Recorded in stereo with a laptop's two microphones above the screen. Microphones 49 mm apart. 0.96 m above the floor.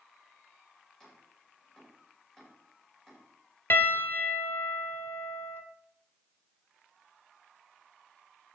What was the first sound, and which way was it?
Chopping, 10° left (ahead or behind).